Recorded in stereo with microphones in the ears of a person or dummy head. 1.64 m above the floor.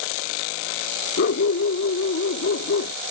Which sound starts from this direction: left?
A dog barking, at 1.2 s.